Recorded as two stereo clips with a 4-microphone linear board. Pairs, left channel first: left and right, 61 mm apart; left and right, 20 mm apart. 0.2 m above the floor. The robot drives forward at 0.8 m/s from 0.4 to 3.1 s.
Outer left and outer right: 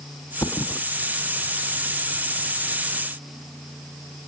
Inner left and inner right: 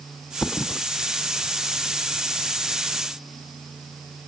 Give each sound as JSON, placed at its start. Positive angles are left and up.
{"t": 0.4, "sound": "a thud", "side_deg": 75}